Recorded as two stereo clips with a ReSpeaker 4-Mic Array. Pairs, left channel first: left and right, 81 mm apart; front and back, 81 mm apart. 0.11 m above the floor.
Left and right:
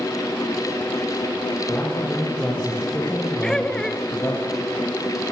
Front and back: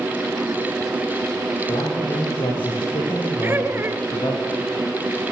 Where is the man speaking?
25° left, 9 m.